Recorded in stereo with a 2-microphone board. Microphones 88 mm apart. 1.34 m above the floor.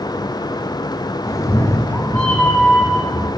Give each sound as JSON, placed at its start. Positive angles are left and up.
{"t": 1.3, "sound": "a cat meowing", "side_deg": 40, "distance_m": 0.7}